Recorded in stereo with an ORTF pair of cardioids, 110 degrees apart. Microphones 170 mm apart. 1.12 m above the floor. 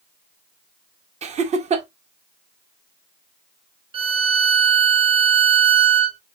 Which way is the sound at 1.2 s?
40° right.